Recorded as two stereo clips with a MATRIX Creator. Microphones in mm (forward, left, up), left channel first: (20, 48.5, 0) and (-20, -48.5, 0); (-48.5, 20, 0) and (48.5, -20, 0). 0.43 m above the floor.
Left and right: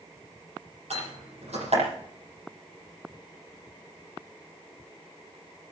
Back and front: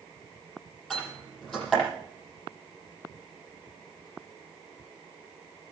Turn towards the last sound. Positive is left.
turn(degrees=-115)